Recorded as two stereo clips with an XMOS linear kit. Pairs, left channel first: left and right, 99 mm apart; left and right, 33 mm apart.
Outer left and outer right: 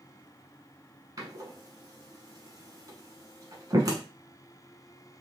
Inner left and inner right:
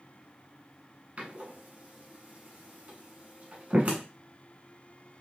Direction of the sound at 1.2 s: 40° right (ahead or behind).